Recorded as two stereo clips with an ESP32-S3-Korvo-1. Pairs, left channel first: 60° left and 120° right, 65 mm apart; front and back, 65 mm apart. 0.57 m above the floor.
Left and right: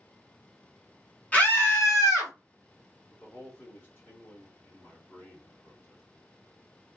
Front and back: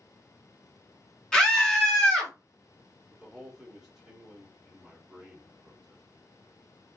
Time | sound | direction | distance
1.3 | a scream | 65° left | 0.9 m
3.1 | a man speaking | 100° left | 1.5 m